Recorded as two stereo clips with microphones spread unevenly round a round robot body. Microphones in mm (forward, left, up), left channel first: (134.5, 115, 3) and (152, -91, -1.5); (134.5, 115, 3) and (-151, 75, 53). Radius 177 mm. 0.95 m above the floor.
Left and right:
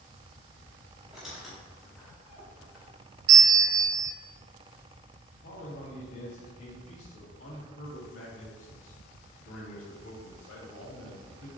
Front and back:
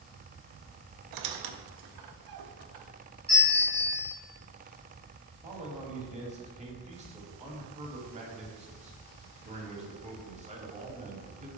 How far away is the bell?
About 0.6 m.